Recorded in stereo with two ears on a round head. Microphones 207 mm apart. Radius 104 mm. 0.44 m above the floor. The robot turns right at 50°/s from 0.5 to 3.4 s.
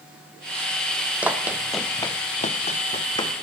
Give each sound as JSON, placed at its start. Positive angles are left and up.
{"t": 1.2, "sound": "running footsteps", "side_deg": -5, "distance_m": 1.1}